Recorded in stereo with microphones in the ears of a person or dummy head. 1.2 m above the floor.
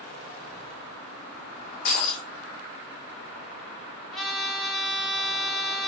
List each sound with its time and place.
1.9 s breaking glass: 45° left (ahead or behind), 0.6 m
4.1 s a trumpet: centre (ahead or behind), 0.5 m